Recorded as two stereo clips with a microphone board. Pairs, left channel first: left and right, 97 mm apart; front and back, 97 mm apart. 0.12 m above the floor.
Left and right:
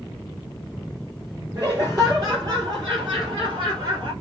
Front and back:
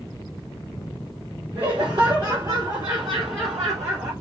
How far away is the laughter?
About 3 m.